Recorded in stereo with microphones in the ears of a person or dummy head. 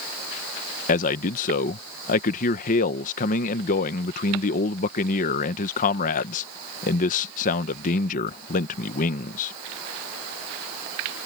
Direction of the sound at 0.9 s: 40° left (ahead or behind).